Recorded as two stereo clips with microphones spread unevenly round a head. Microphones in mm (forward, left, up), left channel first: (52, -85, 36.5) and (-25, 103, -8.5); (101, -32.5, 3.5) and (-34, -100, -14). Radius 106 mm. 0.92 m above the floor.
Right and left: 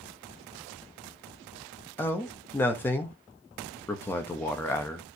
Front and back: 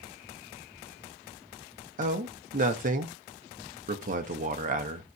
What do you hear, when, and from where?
2.0 s a man speaking: 155° right, 1.4 m